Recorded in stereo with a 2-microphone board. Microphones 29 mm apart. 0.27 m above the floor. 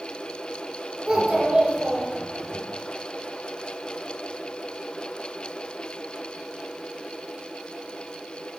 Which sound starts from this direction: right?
A child speaking, at 1.1 s.